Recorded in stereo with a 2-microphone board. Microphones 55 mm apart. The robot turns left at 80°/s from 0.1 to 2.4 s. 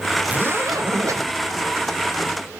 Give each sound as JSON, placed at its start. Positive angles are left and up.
{"t": 0.2, "sound": "a zipper", "azimuth_deg": -30, "distance_m": 2.5}